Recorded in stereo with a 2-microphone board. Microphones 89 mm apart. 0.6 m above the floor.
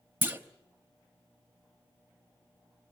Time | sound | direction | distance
0.2 | a clunk | 25° right (ahead or behind) | 0.9 m